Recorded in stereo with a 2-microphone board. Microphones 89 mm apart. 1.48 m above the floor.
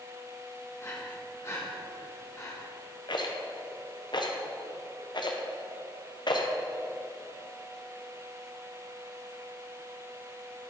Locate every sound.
0.8 s breathing: 30° left (ahead or behind), 1.3 m
3.1 s a rattle: 50° left (ahead or behind), 0.7 m